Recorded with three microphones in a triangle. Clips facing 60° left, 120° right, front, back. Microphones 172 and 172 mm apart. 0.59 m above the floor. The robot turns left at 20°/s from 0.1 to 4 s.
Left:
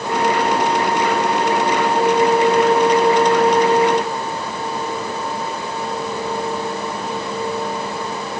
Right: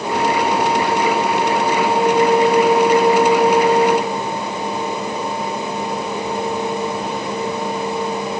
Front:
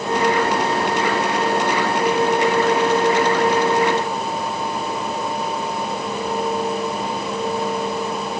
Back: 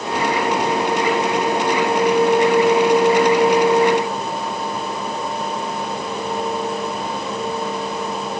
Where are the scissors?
I don't hear scissors.